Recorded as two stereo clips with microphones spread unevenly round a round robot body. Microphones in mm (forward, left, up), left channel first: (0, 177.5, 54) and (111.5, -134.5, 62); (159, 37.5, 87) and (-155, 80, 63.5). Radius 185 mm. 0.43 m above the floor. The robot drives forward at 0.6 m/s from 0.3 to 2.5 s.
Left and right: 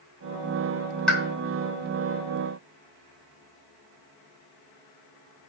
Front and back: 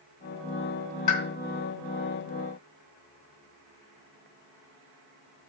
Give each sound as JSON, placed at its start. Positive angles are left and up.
{"t": 1.1, "sound": "a pop", "azimuth_deg": 20, "distance_m": 3.5}